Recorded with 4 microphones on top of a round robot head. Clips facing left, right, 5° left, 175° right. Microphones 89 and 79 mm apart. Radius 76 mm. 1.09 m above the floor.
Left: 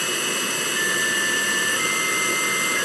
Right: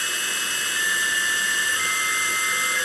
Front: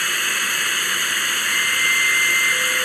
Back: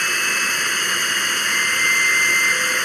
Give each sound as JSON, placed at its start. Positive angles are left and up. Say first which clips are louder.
{"t": 0.0, "sound": "running water", "louder": "left 3 dB, back 1 dB", "azimuth_deg": 100}